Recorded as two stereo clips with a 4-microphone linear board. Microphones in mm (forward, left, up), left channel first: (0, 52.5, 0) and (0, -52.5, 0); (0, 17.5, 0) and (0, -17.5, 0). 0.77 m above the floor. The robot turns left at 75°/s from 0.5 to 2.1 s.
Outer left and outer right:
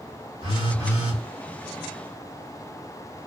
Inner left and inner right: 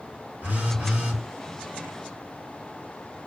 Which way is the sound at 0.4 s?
120° right.